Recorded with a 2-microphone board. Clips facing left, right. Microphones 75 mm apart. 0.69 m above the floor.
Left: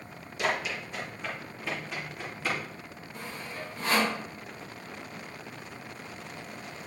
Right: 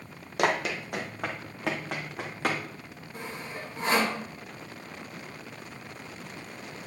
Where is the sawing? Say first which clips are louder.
Right 1 dB; 30° right (ahead or behind), 2.5 m.